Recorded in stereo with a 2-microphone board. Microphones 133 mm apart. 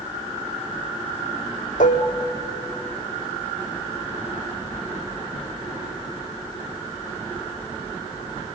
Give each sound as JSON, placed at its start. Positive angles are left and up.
{"t": 1.8, "sound": "dishes clattering", "side_deg": 80, "distance_m": 1.4}